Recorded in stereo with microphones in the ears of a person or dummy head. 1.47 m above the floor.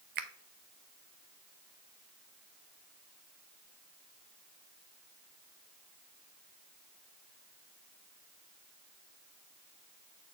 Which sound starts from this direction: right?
A finger snap, at 0.1 s.